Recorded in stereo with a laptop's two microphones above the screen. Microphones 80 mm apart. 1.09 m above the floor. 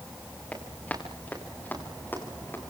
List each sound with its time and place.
0.5 s running footsteps: 15° left (ahead or behind), 9 m; by 2.6 s 25° left (ahead or behind), 9 m